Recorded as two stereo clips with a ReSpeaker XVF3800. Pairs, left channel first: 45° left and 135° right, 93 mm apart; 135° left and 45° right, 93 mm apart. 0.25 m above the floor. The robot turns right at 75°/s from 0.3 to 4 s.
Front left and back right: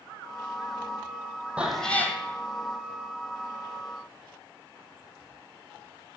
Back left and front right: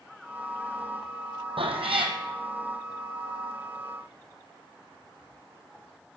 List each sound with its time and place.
1.6 s a cat meowing: 60° right, 1.4 m; by 2.2 s 15° right, 1.4 m